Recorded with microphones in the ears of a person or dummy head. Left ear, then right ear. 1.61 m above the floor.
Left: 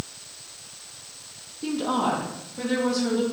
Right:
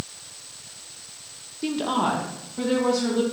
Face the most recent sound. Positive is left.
turn(degrees=-30)  # may be behind; listen again after turning